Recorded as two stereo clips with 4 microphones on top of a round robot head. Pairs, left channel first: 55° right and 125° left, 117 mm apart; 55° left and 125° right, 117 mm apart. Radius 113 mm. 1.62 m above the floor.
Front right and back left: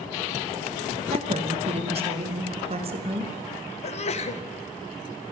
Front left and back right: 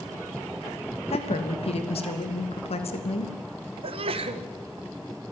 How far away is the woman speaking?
About 3 m.